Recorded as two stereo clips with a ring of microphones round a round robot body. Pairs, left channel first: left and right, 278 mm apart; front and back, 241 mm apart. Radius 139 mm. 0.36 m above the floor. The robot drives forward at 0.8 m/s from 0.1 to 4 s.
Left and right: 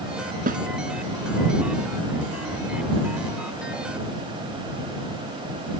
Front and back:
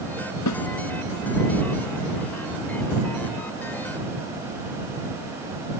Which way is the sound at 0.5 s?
30° right.